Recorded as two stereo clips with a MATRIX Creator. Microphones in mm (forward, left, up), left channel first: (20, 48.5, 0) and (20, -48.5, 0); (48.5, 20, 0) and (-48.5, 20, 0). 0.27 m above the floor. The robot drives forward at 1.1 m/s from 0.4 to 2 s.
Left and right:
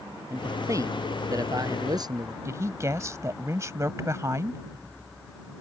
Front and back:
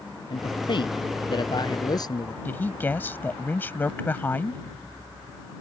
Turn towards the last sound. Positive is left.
turn(degrees=-55)